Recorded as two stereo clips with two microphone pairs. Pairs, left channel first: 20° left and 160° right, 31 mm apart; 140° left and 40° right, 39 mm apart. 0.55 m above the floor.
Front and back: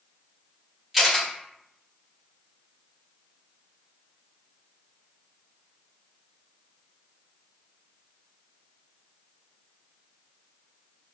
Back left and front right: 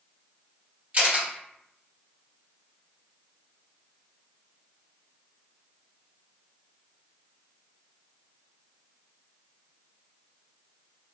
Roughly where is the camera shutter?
Right.